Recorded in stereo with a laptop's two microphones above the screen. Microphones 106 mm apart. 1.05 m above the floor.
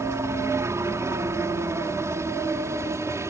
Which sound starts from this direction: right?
A helicopter, at 0.0 s.